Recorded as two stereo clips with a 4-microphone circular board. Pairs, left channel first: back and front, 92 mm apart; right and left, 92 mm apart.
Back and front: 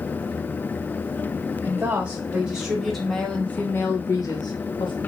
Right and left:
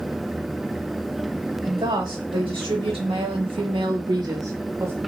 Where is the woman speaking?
70° left, 2.5 m; by 5.0 s 155° left, 1.5 m.